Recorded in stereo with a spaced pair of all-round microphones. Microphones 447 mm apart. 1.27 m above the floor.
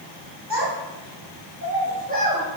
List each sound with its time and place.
0.5 s a child speaking: 70° right (ahead or behind), 1.1 m; by 2.4 s 10° right (ahead or behind), 1.1 m